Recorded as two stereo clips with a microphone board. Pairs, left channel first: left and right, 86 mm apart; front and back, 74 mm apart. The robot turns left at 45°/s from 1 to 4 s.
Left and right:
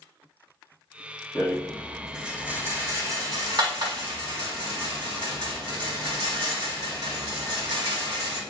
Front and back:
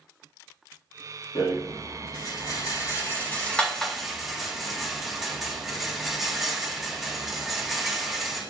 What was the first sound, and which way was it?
A rattle, 25° left.